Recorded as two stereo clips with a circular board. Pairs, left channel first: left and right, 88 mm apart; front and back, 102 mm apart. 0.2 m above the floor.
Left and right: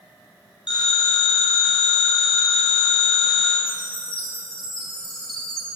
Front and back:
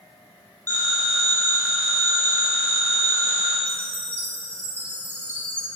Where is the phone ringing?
75° left, 5.5 m.